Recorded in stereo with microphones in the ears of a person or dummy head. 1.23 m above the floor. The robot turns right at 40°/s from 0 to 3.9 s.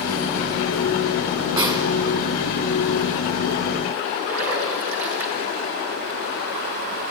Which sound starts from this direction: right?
A splash, at 4.3 s.